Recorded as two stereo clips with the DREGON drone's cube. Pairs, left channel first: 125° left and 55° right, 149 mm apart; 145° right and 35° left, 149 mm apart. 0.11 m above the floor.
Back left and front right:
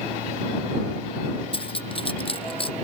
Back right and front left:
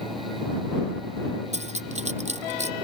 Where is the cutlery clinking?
75° left.